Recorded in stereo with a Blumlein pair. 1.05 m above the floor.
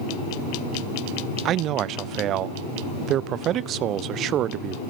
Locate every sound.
1.4 s a man speaking: 35° right, 0.5 m